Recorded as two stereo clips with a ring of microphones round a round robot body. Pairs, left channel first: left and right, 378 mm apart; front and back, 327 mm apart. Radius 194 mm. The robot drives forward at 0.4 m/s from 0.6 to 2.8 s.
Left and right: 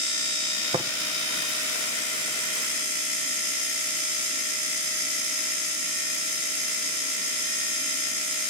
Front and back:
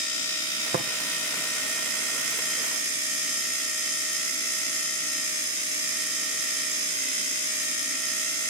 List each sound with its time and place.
0.7 s tapping: 145° right, 0.9 m; by 0.9 s 150° right, 0.9 m